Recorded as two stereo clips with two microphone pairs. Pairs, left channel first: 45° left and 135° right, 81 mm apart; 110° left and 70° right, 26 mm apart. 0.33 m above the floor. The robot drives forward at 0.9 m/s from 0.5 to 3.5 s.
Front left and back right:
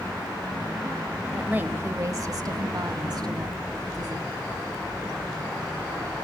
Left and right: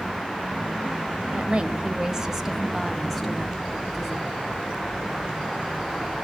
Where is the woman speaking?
65° right, 1.1 m; by 4.3 s 160° right, 1.9 m.